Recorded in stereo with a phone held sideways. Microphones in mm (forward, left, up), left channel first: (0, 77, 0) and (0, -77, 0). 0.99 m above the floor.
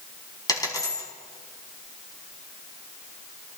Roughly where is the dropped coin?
Left.